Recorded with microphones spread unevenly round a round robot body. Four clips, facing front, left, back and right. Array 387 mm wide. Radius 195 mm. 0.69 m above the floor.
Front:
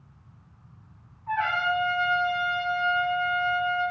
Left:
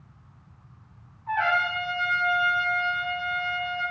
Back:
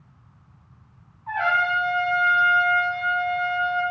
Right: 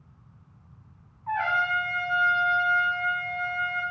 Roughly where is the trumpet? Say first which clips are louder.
Left 1 dB, back 3 dB; behind right.